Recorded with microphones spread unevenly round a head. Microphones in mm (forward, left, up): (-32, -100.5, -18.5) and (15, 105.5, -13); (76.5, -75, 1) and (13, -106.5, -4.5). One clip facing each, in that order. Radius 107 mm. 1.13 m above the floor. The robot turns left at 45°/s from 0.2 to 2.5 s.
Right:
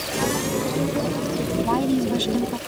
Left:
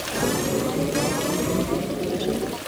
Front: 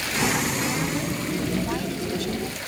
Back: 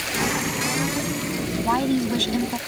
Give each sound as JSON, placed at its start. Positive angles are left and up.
{"t": 1.6, "sound": "a woman speaking", "azimuth_deg": -110}